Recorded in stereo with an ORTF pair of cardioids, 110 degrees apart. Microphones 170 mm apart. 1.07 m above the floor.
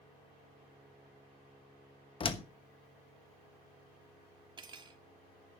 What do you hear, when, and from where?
2.2 s a door slam: 30° left, 1.1 m
4.6 s cutlery clinking: 30° right, 1.4 m